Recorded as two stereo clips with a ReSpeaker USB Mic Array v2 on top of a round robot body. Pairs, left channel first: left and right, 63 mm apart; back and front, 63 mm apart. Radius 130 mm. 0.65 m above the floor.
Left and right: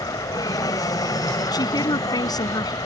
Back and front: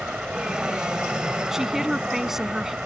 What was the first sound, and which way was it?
An aircraft, 80° left.